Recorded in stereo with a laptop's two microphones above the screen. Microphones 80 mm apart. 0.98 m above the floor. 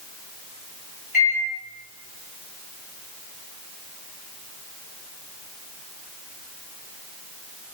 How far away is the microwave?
About 2 m.